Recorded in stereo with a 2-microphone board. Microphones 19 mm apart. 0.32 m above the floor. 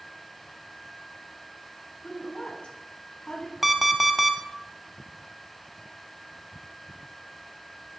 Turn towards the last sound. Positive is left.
turn(degrees=-15)  # may be behind; listen again after turning